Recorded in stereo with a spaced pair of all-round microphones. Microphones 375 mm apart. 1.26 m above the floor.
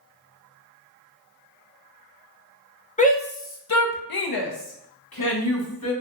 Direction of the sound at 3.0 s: 20° left (ahead or behind).